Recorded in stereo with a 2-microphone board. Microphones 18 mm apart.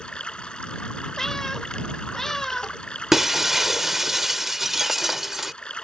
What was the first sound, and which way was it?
Running water, 55° left (ahead or behind).